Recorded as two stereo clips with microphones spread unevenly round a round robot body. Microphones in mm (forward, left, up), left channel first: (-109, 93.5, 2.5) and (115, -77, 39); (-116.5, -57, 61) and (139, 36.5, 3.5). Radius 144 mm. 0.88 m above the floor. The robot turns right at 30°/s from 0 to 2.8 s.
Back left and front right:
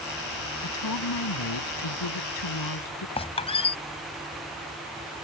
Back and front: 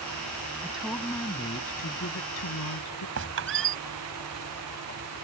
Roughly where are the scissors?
I don't hear scissors.